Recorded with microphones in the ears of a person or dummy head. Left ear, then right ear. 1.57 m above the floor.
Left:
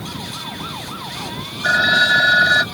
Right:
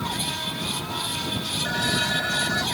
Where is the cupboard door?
No cupboard door in this recording.